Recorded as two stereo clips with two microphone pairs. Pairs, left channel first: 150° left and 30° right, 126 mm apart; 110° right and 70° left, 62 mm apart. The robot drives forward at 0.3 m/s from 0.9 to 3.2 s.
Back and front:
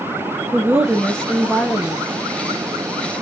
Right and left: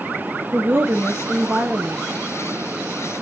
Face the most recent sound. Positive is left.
turn(degrees=140)